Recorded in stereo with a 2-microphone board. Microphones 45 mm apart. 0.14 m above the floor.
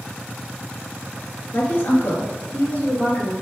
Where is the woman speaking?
55° left (ahead or behind), 1.8 m; by 3.3 s 50° left (ahead or behind), 3 m.